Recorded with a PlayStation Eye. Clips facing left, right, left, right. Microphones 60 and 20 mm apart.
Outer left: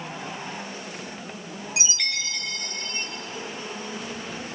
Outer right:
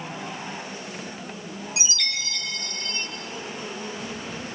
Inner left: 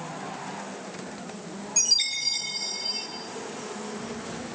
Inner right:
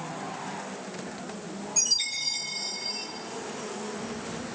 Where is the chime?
30° left (ahead or behind), 5 m.